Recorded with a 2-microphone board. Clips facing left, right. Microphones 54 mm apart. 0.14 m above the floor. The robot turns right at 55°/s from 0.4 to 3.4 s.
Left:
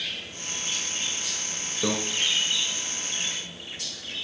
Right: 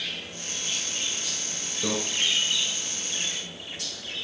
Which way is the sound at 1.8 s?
20° left (ahead or behind).